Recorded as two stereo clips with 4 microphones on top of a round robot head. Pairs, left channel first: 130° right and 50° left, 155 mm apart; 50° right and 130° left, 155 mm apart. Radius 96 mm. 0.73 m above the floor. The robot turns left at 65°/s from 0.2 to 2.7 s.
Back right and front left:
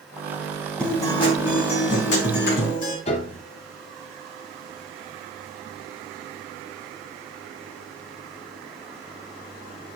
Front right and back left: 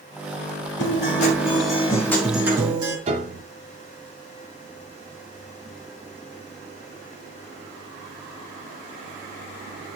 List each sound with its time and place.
0.8 s a guitar: 45° right, 4 m; by 3.0 s 170° right, 4 m
3.1 s a piano: straight behind, 1.1 m